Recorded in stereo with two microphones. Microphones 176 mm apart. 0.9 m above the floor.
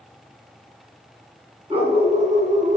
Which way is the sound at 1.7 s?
35° right (ahead or behind).